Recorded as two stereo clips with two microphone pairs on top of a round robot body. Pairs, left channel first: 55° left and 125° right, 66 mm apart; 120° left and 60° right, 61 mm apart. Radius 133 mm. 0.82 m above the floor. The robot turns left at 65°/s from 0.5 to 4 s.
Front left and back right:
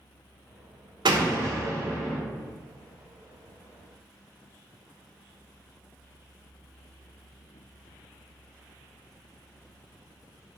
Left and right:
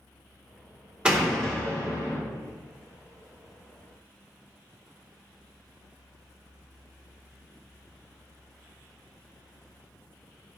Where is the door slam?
135° right, 0.6 m; by 2.2 s 150° left, 0.6 m.